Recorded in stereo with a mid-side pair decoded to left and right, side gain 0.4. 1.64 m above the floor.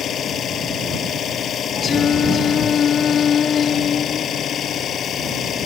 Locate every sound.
0.0 s an engine running: 65° left
1.8 s singing: 60° left